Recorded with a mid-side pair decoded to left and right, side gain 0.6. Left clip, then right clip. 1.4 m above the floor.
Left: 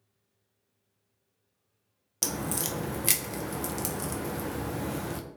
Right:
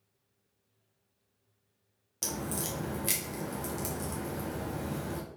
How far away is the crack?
About 0.7 m.